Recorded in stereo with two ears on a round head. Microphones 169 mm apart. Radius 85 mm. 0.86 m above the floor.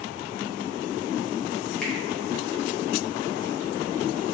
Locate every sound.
1.8 s a finger snap: 5° left (ahead or behind), 0.7 m